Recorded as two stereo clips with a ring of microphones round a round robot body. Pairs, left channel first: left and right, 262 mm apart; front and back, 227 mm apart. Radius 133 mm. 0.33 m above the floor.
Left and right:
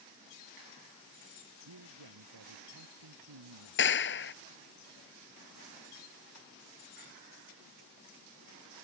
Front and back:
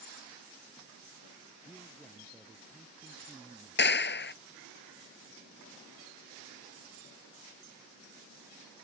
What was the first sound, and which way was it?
A man speaking, 90° right.